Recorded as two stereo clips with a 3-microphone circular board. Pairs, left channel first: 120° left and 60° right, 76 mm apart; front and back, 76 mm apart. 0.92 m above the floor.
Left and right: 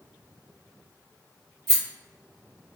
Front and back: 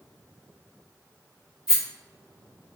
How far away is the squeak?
I don't hear a squeak.